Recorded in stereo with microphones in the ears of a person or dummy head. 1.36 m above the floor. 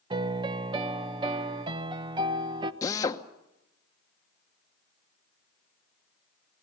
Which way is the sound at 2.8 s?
15° left (ahead or behind).